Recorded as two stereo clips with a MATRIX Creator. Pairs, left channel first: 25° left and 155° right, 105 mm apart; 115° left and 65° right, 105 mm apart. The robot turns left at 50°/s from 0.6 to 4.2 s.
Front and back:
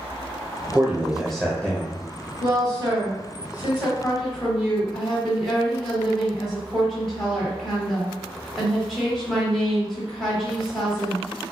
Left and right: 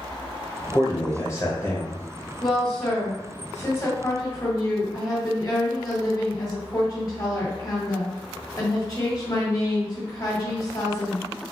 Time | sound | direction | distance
0.7 | a man speaking | 140° left | 1.0 m
2.4 | a woman speaking | 155° right | 1.9 m